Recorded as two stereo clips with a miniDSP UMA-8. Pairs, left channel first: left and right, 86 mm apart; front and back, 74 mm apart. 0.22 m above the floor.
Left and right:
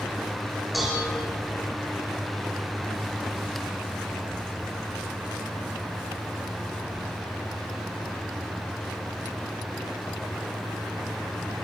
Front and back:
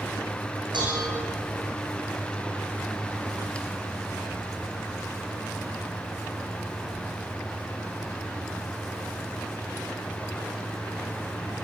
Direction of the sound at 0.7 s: Straight behind.